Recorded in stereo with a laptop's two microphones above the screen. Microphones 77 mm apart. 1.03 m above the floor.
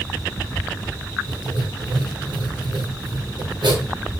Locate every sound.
1.3 s writing: 85° right, 6.5 m